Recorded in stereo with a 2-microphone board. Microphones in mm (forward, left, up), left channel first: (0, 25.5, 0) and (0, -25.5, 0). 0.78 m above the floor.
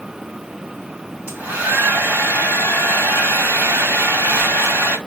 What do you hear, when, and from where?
1.3 s a hair dryer: 30° right (ahead or behind), 2 m